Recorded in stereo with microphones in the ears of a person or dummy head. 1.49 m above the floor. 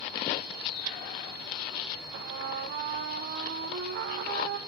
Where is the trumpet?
60° right (ahead or behind), 1.0 m.